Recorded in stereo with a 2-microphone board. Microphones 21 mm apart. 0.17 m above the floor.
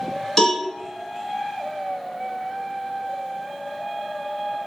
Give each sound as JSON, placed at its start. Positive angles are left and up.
{"t": 0.4, "sound": "a cowbell", "side_deg": 15, "distance_m": 1.5}